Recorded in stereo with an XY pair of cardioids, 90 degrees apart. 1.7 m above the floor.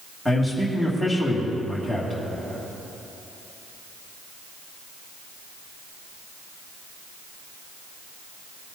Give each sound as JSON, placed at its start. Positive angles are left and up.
{"t": 0.2, "sound": "a man speaking", "azimuth_deg": -10, "distance_m": 2.5}